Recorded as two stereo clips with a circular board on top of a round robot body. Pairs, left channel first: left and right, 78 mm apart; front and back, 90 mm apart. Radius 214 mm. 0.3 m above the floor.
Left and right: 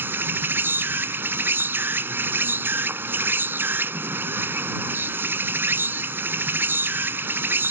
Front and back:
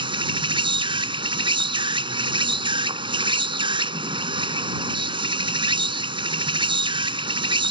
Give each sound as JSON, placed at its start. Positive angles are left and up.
{"t": 0.0, "sound": "an insect", "azimuth_deg": -155}